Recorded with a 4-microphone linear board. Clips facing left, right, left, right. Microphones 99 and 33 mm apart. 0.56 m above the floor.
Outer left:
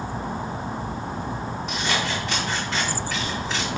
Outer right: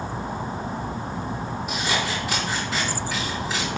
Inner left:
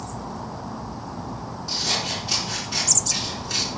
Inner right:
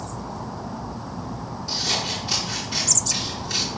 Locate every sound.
1.7 s scissors: 5° right (ahead or behind), 4 m